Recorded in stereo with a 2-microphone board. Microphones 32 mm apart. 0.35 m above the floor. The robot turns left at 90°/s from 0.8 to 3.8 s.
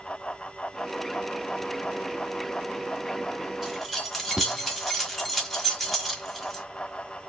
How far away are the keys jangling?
About 1.2 m.